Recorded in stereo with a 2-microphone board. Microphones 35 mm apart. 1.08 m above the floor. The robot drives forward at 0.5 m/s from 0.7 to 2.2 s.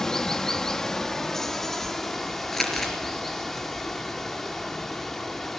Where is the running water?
15° left (ahead or behind), 1.1 m; by 5.6 s 10° left (ahead or behind), 1.8 m.